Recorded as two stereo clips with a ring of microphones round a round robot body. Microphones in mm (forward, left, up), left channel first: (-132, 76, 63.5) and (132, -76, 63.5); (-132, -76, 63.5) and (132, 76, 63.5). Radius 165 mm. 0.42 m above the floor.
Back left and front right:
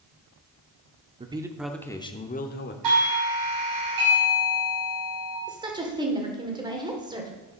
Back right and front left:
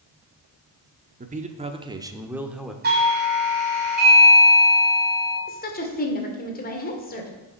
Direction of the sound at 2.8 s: 25° right.